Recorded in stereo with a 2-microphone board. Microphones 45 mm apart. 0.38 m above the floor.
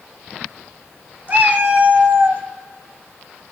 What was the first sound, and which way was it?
A cat meowing, 40° right (ahead or behind).